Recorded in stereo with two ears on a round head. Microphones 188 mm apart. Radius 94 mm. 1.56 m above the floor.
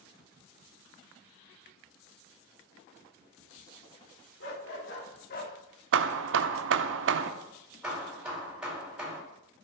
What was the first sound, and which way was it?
A dog barking, 60° left (ahead or behind).